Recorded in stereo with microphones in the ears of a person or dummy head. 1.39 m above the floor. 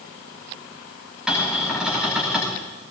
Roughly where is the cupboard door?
Centre.